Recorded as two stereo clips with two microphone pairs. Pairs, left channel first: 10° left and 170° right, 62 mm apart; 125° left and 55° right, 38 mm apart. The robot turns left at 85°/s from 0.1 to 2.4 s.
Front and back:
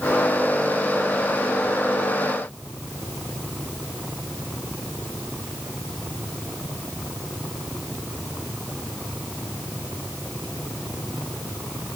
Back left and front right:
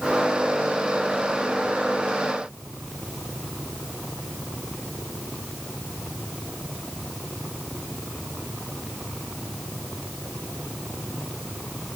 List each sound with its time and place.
Only background noise.